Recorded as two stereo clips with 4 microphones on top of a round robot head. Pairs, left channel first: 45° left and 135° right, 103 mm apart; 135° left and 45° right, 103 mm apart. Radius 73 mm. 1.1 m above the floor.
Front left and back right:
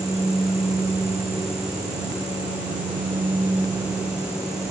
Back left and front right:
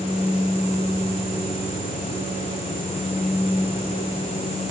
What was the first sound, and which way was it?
Only background noise.